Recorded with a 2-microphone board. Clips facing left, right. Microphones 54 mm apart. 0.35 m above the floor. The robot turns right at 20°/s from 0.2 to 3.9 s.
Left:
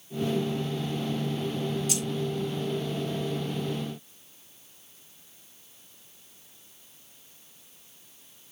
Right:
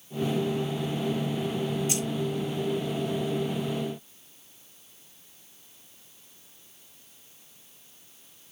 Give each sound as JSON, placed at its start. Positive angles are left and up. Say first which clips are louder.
{"t": 1.9, "sound": "keys jangling", "louder": "right 1 dB", "side_deg": -30, "distance_m": 3.0}